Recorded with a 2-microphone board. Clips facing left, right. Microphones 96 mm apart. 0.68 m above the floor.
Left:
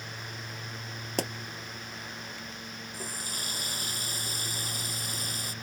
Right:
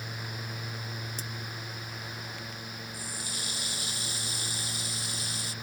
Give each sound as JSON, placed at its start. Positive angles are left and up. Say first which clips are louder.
{"t": 1.2, "sound": "a pop", "louder": "left 11 dB", "side_deg": 70}
{"t": 2.9, "sound": "a running tap", "louder": "left 1 dB", "side_deg": 45}